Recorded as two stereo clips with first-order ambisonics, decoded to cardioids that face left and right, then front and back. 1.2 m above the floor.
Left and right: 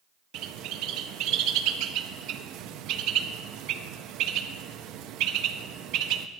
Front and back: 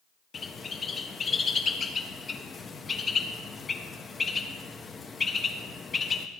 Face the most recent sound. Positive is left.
turn(degrees=-70)